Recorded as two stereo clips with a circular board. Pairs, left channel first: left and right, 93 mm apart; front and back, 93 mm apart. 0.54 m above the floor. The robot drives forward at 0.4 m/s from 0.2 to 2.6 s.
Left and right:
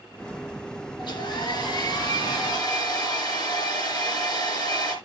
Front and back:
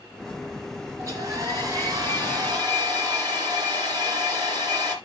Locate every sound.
1.0 s a hair dryer: 125° left, 3 m; by 5.0 s 135° left, 3.5 m